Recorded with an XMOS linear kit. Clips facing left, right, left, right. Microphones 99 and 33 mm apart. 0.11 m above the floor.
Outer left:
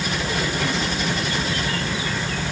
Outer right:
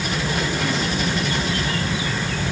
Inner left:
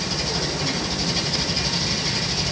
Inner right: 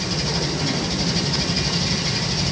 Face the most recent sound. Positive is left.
No sound to turn to.